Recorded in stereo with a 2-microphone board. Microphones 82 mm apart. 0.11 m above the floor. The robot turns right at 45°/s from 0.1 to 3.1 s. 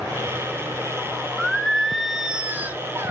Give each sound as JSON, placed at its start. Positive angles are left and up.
{"t": 1.4, "sound": "singing", "azimuth_deg": 165, "distance_m": 1.1}